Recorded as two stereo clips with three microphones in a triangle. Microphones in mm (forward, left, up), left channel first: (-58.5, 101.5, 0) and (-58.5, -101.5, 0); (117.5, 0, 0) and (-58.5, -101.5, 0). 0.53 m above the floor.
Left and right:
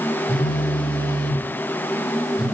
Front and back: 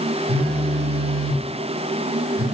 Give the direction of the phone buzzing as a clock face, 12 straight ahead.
6 o'clock.